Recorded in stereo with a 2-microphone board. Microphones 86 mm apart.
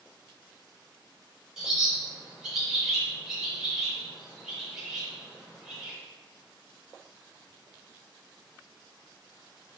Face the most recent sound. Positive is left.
turn(degrees=-5)  # may be behind; listen again after turning